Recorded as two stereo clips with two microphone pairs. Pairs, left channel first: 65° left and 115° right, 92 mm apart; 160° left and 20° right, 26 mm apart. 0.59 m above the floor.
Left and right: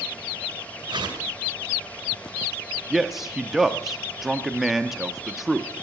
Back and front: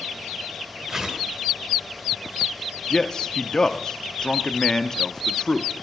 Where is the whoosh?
85° right, 1.9 m.